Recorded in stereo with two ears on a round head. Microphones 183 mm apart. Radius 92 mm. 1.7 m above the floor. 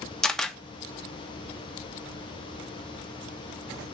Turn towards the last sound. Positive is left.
turn(degrees=5)  # may be behind; listen again after turning